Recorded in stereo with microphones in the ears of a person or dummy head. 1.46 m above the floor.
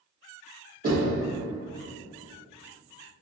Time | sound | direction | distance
0.8 | knocking | 45° right (ahead or behind) | 1.1 m